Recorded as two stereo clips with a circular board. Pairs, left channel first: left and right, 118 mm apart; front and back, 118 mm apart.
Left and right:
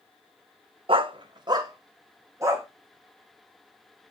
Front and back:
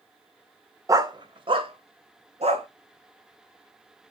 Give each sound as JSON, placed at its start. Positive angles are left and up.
{"t": 0.9, "sound": "a dog barking", "azimuth_deg": -120, "distance_m": 0.8}